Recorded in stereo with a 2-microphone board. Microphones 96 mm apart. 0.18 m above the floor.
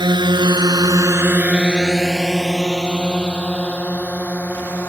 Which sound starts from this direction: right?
A drone, at 0.0 s.